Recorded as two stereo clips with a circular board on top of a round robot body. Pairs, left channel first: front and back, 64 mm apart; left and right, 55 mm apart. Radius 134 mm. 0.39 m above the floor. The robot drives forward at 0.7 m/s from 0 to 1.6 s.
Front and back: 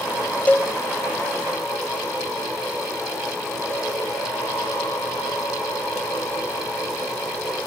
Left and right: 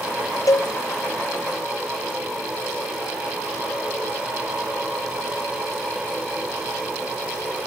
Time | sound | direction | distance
0.5 | a cowbell | 65° left | 0.8 m